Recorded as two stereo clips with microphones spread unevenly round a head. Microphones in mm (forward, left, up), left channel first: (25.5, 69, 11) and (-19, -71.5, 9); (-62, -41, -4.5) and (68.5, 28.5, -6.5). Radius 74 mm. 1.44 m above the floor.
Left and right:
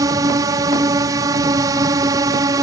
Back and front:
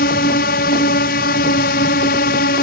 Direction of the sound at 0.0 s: 175° right.